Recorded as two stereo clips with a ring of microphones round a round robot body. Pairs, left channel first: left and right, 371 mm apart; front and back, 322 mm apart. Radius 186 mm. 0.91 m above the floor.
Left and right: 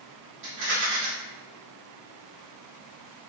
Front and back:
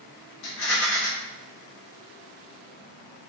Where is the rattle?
35° right, 1.2 m.